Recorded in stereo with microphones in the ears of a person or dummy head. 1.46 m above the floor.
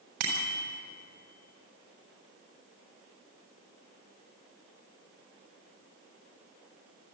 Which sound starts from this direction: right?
A bicycle bell, at 0.2 s.